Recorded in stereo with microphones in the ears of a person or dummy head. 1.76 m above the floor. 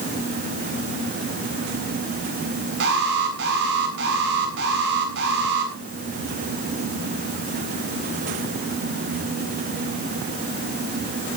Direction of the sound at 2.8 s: 60° right (ahead or behind).